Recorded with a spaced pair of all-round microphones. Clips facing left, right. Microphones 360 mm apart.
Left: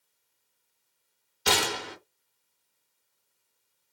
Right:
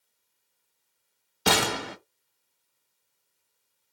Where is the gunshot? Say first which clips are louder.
Right 3 dB; 80° right, 0.6 m.